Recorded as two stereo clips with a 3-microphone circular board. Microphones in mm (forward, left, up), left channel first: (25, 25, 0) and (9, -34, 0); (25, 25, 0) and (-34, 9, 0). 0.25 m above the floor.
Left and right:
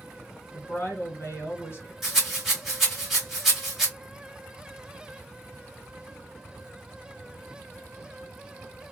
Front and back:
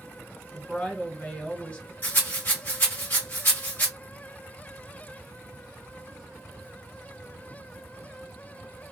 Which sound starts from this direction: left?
A woman speaking, at 0.5 s.